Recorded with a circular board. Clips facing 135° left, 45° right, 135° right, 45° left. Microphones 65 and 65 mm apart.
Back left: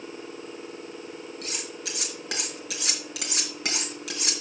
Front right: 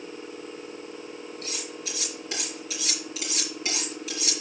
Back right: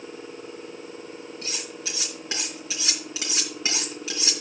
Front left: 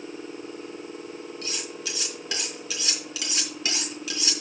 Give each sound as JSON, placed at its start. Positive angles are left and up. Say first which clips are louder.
{"t": 1.4, "sound": "cutlery clinking", "louder": "even, even", "azimuth_deg": 160, "distance_m": 3.5}